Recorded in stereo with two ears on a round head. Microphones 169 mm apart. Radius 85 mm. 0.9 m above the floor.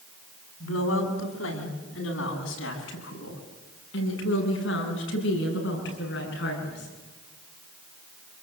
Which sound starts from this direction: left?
A woman speaking, at 0.6 s.